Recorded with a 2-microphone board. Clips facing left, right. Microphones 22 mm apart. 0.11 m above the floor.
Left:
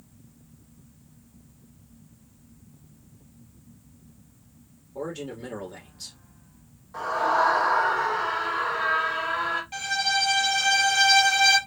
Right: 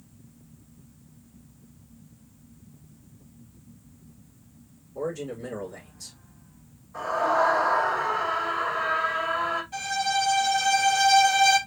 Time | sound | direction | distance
5.0 | a man speaking | 65° left (ahead or behind) | 4 m
6.9 | a scream | 70° left (ahead or behind) | 4 m
9.7 | a violin | 50° left (ahead or behind) | 3 m